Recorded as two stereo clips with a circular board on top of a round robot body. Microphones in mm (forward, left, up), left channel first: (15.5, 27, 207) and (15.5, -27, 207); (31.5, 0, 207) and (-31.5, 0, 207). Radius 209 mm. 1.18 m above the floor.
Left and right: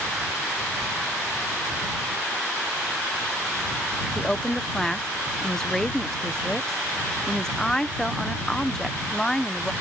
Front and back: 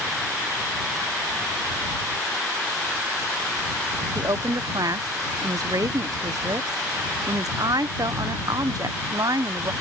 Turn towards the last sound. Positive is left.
turn(degrees=170)